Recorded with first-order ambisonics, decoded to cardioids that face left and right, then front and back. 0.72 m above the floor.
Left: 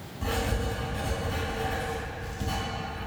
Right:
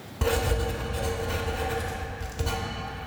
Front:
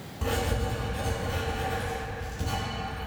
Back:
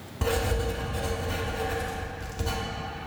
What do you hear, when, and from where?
0.2 s writing: 130° right, 1.6 m